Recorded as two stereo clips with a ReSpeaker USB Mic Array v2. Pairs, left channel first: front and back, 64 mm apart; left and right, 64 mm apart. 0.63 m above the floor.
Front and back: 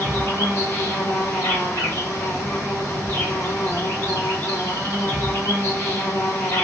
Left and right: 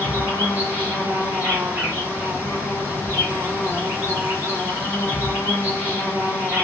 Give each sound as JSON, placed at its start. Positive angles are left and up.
{"t": 0.0, "sound": "an insect", "azimuth_deg": -35, "distance_m": 1.4}